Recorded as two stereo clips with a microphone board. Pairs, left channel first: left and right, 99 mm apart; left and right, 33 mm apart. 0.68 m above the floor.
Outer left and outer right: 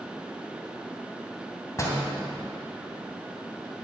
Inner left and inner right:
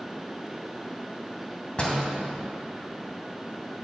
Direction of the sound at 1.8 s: 35° left (ahead or behind).